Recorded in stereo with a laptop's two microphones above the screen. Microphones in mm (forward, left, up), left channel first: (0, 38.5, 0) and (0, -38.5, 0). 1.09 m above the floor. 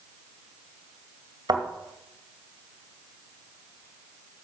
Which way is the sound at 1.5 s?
55° right (ahead or behind).